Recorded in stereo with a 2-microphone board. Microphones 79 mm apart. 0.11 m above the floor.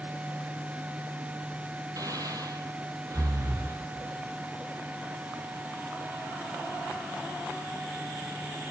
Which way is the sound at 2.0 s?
50° right (ahead or behind).